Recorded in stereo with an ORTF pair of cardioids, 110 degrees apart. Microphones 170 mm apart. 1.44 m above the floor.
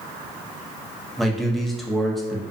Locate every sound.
1.2 s a man speaking: straight ahead, 0.6 m